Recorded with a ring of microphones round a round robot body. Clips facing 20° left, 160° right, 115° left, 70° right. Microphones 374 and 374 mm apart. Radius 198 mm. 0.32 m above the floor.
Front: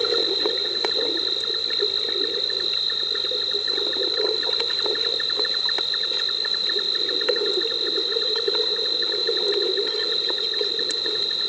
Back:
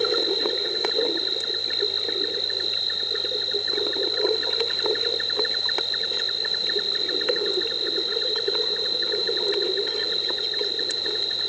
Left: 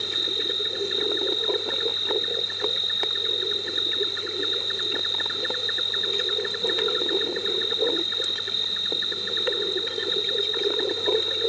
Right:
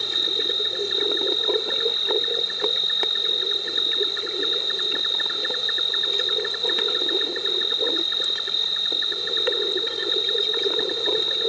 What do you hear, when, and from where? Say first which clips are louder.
0.0 s an insect: even, right 1 dB; 50° right